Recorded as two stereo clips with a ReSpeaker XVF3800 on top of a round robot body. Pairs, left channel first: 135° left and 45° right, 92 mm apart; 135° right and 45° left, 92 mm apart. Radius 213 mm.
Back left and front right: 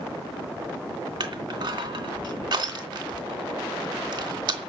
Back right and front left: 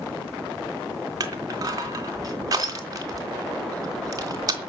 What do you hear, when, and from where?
1.2 s crushing: 5° right, 3 m